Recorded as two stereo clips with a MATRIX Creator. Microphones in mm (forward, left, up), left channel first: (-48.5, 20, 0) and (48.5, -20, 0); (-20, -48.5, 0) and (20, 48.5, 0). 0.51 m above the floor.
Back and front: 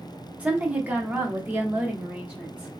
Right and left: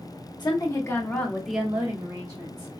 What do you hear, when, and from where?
0.4 s a woman speaking: 95° right, 0.9 m; by 2.7 s 50° left, 1.0 m